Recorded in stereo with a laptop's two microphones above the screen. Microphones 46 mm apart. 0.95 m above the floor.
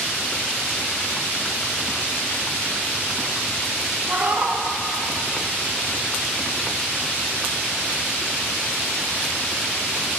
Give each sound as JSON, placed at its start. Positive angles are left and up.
{"t": 4.1, "sound": "a cat meowing", "side_deg": -40, "distance_m": 1.0}